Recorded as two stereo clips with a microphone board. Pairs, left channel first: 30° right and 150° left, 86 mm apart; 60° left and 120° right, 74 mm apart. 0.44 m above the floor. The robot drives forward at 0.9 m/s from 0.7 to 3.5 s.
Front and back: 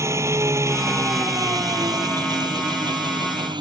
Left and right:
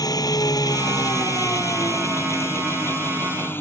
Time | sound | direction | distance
0.0 | an engine running | 95° left | ?